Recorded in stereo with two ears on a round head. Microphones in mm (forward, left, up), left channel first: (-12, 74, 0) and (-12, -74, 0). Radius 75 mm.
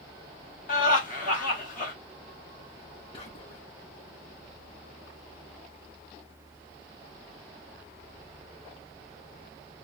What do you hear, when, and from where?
0.7 s laughter: 55° left (ahead or behind), 1.5 m
3.1 s whispering: 30° left (ahead or behind), 0.6 m